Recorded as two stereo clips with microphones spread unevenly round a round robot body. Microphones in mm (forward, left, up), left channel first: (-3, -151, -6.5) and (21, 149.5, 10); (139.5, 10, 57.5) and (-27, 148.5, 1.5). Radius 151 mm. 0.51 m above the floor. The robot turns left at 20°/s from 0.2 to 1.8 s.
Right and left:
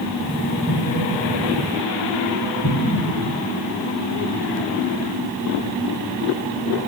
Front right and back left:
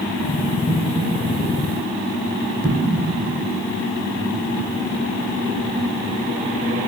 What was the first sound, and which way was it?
An explosion, 105° right.